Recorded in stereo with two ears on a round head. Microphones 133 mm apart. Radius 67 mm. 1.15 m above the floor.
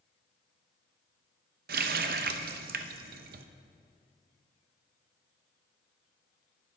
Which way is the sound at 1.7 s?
65° right (ahead or behind).